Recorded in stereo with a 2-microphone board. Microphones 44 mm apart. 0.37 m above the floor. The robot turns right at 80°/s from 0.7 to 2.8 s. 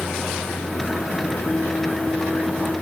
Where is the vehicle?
70° left; by 2.8 s 125° right.